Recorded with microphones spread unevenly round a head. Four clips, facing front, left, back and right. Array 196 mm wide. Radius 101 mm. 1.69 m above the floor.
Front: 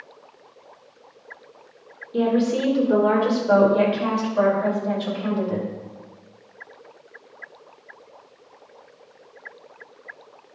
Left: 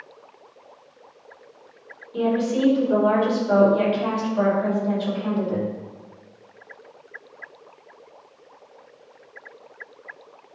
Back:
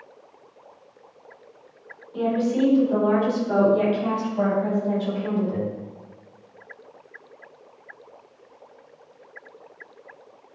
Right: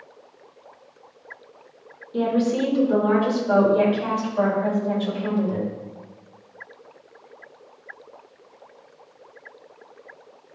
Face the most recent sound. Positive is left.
turn(degrees=0)